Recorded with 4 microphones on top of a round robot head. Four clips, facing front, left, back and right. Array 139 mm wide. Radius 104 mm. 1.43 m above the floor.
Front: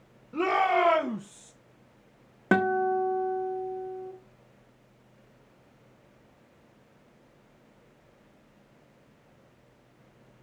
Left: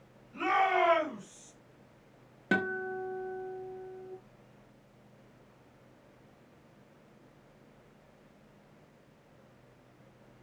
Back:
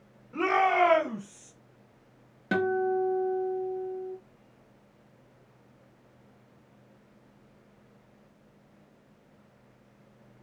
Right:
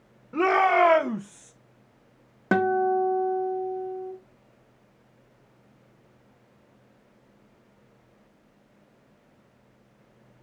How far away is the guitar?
About 0.9 m.